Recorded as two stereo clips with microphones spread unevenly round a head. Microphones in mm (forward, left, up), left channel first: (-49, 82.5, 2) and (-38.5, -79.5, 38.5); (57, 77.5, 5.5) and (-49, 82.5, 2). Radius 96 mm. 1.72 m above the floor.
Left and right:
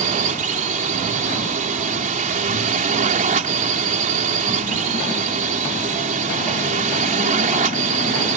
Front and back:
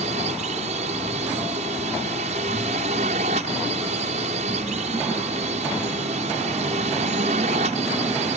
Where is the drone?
130° right.